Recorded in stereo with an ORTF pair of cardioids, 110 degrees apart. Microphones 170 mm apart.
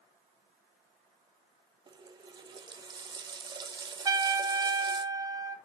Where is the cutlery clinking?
I don't hear cutlery clinking.